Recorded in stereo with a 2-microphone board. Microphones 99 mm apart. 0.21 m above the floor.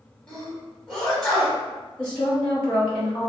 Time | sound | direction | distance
0.3 | a sneeze | 5° left (ahead or behind) | 1.1 m
2.0 | a woman speaking | 10° left (ahead or behind) | 0.9 m